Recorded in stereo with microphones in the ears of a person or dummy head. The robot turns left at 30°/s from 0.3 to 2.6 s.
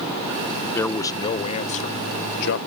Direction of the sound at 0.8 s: 170° left.